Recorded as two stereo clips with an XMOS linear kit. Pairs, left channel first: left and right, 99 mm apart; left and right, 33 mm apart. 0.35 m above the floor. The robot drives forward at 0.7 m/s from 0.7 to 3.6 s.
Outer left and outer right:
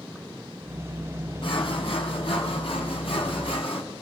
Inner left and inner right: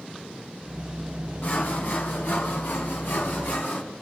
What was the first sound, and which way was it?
Sawing, 60° left (ahead or behind).